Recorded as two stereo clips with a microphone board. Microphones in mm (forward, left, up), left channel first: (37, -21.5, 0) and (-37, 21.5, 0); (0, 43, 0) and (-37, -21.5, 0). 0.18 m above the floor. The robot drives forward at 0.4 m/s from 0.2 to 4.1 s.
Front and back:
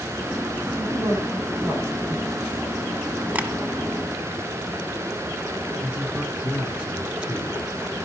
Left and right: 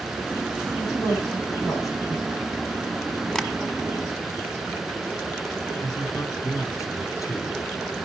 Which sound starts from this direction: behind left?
Tapping, at 3.4 s.